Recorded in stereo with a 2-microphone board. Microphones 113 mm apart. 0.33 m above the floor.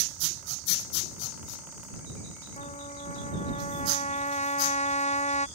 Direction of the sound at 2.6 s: 75° left (ahead or behind).